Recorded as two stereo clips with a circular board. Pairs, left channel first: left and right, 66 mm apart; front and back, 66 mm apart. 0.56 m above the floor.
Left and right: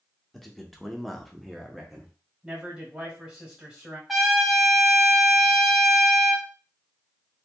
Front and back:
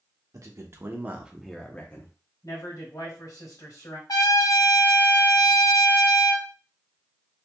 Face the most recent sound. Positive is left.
turn(degrees=0)